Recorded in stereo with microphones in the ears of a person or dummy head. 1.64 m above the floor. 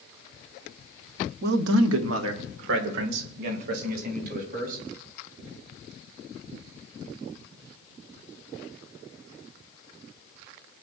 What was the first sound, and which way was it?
A man speaking, 60° right (ahead or behind).